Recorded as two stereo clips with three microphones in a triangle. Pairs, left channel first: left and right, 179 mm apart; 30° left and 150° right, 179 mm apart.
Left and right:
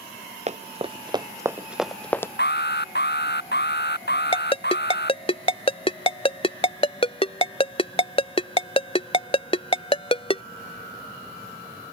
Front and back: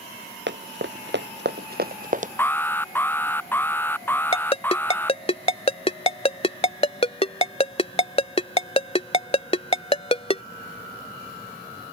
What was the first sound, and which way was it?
Running footsteps, 140° right.